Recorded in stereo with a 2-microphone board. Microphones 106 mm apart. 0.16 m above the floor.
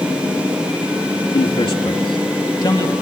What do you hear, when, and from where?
1.3 s a man speaking: 55° left (ahead or behind), 3.5 m; by 2.9 s 40° left (ahead or behind), 4 m